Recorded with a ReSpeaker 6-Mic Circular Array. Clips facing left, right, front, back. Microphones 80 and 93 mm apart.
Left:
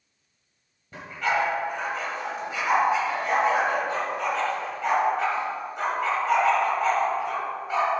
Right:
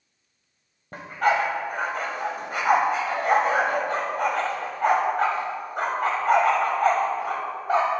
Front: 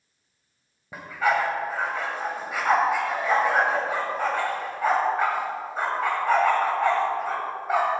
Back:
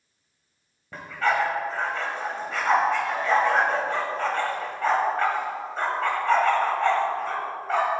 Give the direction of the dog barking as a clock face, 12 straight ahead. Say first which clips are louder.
Right 4 dB, front 1 dB; 3 o'clock.